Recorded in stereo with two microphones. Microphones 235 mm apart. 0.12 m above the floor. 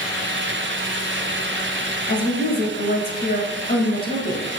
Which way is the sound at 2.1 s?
40° left (ahead or behind).